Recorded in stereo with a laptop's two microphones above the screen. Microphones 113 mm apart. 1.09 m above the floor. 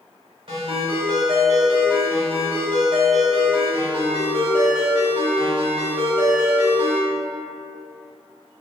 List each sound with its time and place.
0.5 s a ringtone: 50° right (ahead or behind), 1.3 m